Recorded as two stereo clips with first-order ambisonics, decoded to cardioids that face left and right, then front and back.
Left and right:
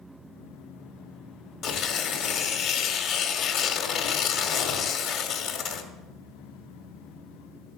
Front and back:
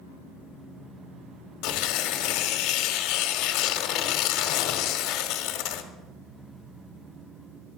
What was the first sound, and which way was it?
Tearing paper, 35° left.